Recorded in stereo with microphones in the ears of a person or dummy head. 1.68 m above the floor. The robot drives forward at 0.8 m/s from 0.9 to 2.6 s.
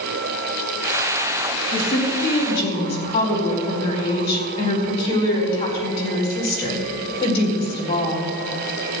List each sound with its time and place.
1.7 s a woman speaking: 30° left (ahead or behind), 3.5 m; by 8.3 s 25° left (ahead or behind), 4 m